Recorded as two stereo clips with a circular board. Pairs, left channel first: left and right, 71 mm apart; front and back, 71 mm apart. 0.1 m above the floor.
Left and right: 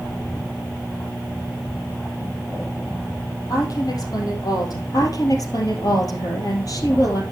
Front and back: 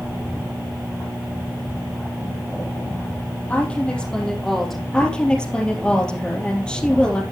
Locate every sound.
3.5 s a woman speaking: 70° left, 3 m; by 4.8 s 90° left, 3.5 m
4.9 s a woman speaking: 75° left, 2.5 m